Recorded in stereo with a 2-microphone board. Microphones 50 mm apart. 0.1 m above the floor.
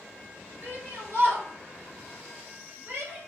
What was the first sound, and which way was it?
A shout, 45° right (ahead or behind).